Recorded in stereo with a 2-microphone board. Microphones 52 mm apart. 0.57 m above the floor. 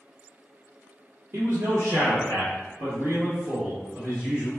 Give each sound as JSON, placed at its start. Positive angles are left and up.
{"t": 1.3, "sound": "a man speaking", "side_deg": -45, "distance_m": 1.2}